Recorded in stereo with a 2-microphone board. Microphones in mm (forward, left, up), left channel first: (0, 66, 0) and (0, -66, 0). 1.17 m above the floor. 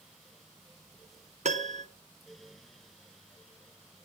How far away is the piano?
About 1.0 m.